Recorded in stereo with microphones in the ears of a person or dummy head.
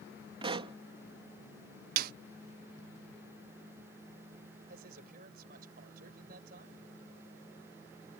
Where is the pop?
35° right (ahead or behind).